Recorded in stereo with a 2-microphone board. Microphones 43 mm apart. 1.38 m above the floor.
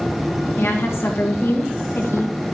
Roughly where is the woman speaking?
Left.